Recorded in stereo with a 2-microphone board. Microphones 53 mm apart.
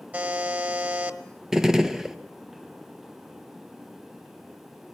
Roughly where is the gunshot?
Centre.